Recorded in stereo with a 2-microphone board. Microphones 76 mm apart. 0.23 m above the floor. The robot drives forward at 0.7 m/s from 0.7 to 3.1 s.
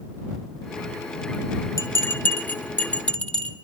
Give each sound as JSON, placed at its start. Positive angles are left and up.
{"t": 1.8, "sound": "a bell", "side_deg": 40, "distance_m": 0.6}